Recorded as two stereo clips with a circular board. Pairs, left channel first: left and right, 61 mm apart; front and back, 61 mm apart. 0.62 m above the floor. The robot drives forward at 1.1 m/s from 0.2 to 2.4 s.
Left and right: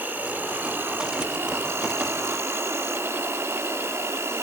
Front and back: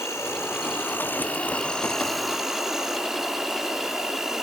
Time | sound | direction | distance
0.0 | an insect | 35° right | 3 m